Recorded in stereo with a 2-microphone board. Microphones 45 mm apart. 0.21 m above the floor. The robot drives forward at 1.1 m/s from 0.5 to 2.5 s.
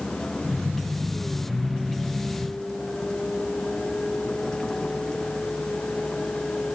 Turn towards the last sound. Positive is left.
turn(degrees=15)  # may be behind; listen again after turning